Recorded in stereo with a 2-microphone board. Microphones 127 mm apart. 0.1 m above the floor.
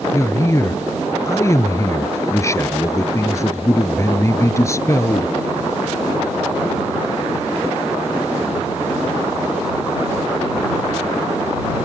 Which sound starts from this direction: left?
A man speaking, at 0.1 s.